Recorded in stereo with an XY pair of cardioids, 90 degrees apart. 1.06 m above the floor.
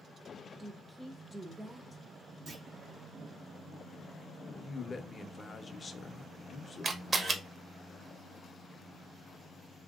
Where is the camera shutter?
40° right, 0.8 m.